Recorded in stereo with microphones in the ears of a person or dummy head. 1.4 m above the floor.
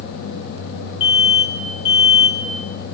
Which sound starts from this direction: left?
An alarm, at 1.0 s.